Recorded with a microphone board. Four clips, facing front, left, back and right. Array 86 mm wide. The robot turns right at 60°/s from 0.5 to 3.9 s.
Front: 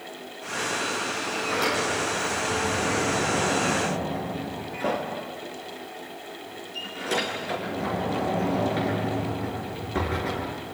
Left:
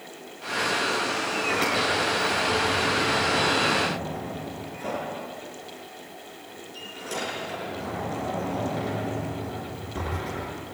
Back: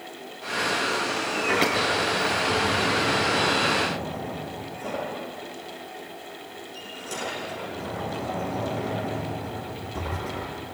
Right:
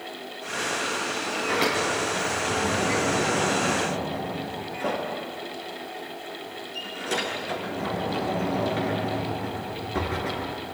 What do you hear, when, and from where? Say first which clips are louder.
1.4 s a sliding door: right 2 dB, back 2 dB; 175° left, 6.5 m; by 10.6 s 35° right, 6.5 m